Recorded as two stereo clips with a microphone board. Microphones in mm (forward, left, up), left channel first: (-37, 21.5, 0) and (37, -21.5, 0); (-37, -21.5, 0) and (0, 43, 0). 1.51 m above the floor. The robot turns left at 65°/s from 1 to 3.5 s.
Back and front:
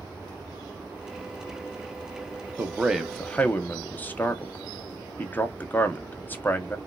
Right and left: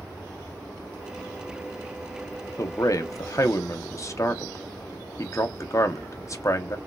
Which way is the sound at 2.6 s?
90° right.